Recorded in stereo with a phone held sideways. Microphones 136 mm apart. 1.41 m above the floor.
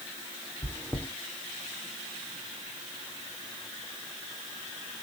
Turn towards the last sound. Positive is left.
turn(degrees=15)  # may be behind; listen again after turning